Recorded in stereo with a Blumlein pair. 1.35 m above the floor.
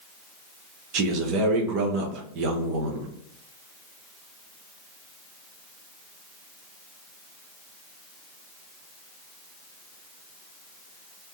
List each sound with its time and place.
0.9 s a man speaking: 40° right, 0.8 m